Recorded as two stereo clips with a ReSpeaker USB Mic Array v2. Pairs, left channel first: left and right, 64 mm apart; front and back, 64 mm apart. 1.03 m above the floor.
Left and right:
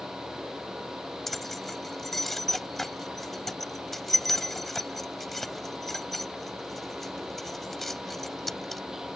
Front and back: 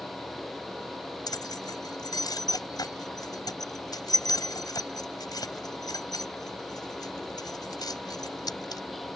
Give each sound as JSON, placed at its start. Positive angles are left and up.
{"t": 1.3, "sound": "keys jangling", "azimuth_deg": 5}